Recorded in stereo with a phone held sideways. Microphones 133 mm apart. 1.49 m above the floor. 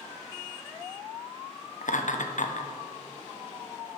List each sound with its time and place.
1.8 s laughter: 70° left (ahead or behind), 1.0 m